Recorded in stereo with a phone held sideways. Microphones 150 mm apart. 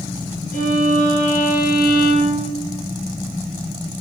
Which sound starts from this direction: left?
A violin, at 0.5 s.